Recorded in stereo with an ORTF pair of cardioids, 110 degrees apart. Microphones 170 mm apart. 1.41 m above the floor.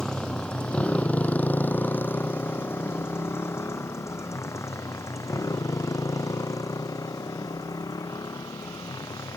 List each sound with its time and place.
0.0 s a motorcycle: 5° left; by 9.4 s 20° left